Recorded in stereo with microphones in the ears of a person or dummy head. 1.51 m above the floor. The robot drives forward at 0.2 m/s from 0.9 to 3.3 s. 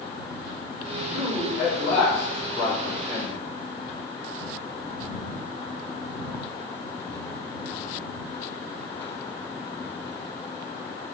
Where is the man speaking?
15° right (ahead or behind), 0.7 m; by 3.5 s 10° right (ahead or behind), 1.1 m.